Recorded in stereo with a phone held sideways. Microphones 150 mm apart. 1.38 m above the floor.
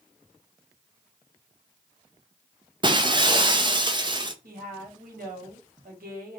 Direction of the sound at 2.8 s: 30° right (ahead or behind).